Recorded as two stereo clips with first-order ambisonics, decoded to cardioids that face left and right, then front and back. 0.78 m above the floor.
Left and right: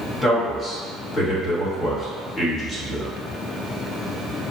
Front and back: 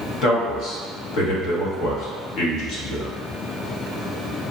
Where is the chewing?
I don't hear chewing.